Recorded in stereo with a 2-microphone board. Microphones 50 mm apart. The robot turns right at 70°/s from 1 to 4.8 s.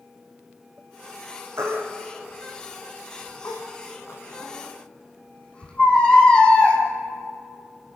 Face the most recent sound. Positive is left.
turn(degrees=20)  # may be behind; listen again after turning